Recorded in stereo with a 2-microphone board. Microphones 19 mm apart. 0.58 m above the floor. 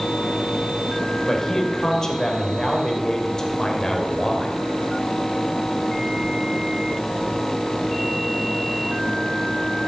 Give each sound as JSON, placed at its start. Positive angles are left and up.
{"t": 1.3, "sound": "a man speaking", "side_deg": 30, "distance_m": 2.0}